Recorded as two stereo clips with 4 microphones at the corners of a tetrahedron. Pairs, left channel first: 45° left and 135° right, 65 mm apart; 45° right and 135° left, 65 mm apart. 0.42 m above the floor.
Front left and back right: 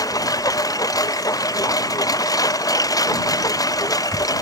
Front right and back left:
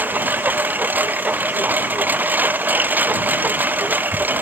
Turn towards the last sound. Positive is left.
turn(degrees=70)